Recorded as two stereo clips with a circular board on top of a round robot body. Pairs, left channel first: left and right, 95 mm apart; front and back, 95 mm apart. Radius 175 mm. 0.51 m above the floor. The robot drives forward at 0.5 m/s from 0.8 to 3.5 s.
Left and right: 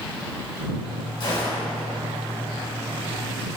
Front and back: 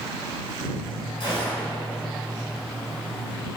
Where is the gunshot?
40° left, 1.4 m; by 1.7 s 50° left, 1.3 m.